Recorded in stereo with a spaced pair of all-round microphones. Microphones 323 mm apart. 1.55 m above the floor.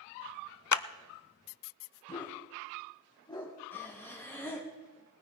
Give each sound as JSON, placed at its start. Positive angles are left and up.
{"t": 0.7, "sound": "a clap", "side_deg": 65, "distance_m": 0.5}
{"t": 2.1, "sound": "a dog barking", "side_deg": 15, "distance_m": 3.0}
{"t": 3.7, "sound": "breathing", "side_deg": 5, "distance_m": 2.5}